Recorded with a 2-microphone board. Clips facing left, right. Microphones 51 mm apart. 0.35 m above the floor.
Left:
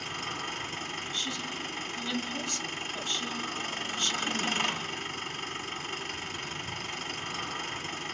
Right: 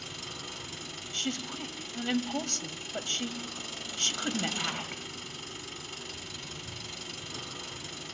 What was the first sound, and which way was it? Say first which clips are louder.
An engine running: left 7 dB; 50° left (ahead or behind).